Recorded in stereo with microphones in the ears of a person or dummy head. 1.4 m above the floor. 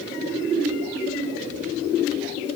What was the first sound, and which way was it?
Only background noise.